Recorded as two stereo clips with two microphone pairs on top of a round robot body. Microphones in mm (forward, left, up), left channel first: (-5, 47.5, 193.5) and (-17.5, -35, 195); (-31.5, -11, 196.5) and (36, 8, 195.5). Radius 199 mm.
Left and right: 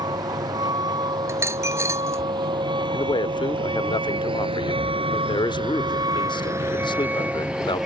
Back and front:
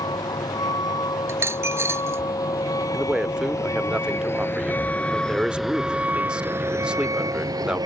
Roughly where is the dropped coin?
Ahead right.